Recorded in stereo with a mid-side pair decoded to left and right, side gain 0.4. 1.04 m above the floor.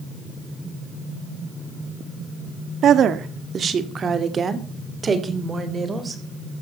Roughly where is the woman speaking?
Right.